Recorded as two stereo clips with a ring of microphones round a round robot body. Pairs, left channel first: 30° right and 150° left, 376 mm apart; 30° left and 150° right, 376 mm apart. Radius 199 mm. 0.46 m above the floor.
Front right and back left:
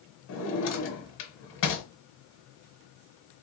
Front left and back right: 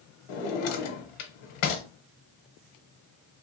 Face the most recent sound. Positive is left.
turn(degrees=30)